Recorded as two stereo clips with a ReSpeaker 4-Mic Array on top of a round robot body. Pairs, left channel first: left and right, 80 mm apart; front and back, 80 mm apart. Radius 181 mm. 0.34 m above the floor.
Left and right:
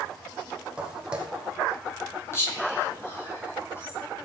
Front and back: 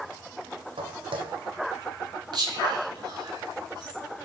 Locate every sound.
0.8 s footsteps: 170° right, 1.4 m
2.3 s whispering: 150° left, 5 m